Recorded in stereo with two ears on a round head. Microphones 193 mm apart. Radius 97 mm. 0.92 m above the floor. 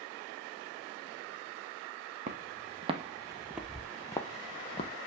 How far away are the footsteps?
About 1.4 m.